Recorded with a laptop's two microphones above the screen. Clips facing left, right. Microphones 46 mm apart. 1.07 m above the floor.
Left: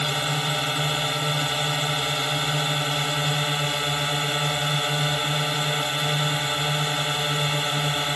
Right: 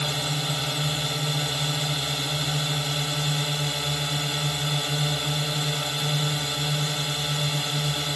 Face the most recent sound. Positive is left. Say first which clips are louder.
# left 3 dB
turn(degrees=25)  # may be behind; listen again after turning